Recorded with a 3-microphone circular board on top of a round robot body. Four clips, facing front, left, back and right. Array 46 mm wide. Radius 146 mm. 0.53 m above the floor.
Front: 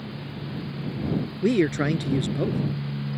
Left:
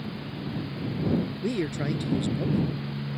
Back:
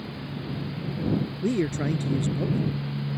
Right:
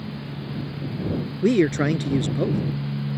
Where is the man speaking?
50° right.